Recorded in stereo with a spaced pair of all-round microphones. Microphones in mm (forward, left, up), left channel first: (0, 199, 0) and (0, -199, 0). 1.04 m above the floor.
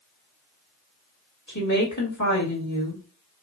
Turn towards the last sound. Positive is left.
turn(degrees=45)  # may be behind; listen again after turning